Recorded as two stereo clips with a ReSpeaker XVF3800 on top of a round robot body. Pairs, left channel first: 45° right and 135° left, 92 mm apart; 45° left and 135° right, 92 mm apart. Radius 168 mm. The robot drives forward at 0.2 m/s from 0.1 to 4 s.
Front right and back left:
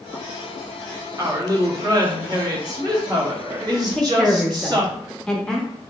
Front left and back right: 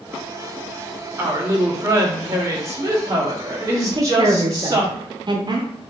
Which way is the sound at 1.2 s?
170° left.